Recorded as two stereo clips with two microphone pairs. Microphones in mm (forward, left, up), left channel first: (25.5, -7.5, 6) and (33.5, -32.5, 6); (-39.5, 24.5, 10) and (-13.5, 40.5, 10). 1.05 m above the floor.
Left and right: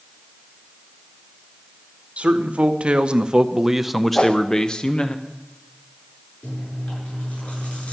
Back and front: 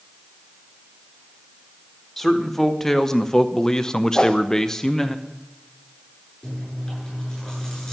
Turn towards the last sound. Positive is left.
turn(degrees=135)